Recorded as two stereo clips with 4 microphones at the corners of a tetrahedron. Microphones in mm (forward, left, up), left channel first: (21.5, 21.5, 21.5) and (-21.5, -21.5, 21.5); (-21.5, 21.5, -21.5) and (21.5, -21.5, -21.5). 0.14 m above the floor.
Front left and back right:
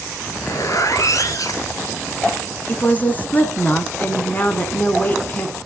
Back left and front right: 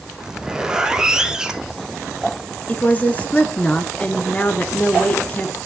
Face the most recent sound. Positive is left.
turn(degrees=90)